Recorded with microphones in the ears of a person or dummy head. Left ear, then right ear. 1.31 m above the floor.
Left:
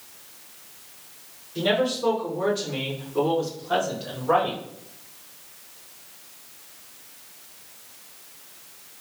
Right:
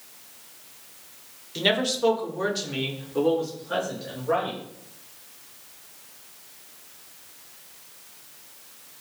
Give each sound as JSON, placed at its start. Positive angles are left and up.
{"t": 1.6, "sound": "a man speaking", "side_deg": -60, "distance_m": 0.7}